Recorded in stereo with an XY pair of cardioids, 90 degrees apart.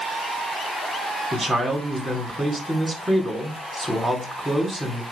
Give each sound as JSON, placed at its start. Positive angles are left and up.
{"t": 1.3, "sound": "a man speaking", "azimuth_deg": -20, "distance_m": 4.0}